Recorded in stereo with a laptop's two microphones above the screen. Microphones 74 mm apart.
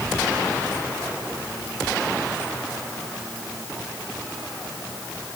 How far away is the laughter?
No laughter in this recording.